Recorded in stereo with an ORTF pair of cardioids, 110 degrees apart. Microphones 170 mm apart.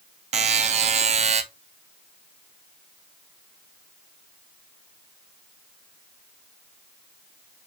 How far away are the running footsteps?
No running footsteps in this recording.